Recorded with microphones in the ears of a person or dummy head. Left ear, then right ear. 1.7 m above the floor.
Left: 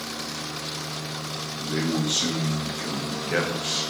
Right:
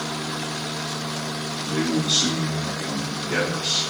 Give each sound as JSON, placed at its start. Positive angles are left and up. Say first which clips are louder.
{"t": 1.6, "sound": "a man speaking", "louder": "right 2 dB", "side_deg": 30, "distance_m": 0.9}